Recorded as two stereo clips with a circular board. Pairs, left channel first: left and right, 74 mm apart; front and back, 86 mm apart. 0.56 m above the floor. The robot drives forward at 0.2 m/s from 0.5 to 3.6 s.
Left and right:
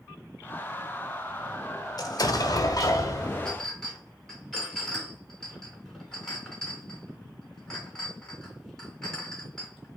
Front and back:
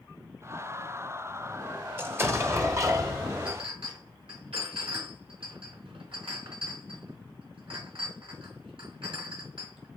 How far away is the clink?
About 3.5 m.